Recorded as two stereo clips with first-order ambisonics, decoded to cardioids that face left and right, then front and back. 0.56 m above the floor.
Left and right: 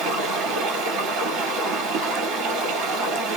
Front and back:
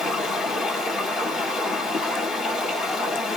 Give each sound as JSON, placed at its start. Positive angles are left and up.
{"t": 0.0, "sound": "running water", "azimuth_deg": -65, "distance_m": 1.8}